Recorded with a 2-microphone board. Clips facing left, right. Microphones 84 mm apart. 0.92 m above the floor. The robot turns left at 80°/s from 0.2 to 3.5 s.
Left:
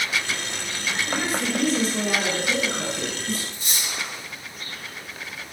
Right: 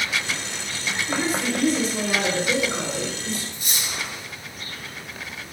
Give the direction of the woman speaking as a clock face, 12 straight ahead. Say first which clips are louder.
Right 3 dB; 9 o'clock.